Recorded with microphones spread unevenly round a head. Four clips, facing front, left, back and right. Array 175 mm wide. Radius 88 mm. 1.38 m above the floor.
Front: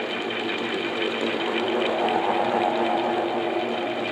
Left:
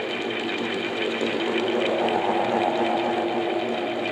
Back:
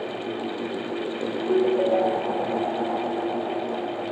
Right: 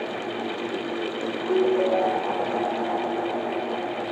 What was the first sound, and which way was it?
A ringtone, 140° right.